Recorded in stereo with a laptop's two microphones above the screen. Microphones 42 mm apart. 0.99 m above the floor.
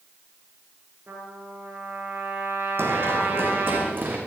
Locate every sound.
1.1 s a trumpet: 60° right (ahead or behind), 6 m
2.8 s running footsteps: 65° right (ahead or behind), 2.5 m; by 4.2 s 50° right (ahead or behind), 3 m